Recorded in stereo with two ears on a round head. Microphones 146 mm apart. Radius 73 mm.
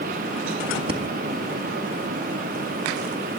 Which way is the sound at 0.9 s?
35° right (ahead or behind).